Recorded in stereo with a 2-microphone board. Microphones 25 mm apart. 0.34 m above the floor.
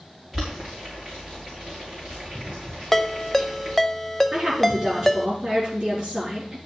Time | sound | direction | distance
0.3 | boiling | 10° right (ahead or behind) | 5.5 m
2.9 | a ringtone | 10° left (ahead or behind) | 0.6 m
4.3 | a woman speaking | 15° right (ahead or behind) | 4.5 m